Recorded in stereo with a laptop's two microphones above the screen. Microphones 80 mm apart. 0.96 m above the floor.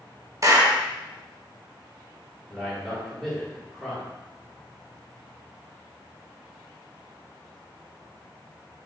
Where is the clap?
40° right (ahead or behind), 0.8 m.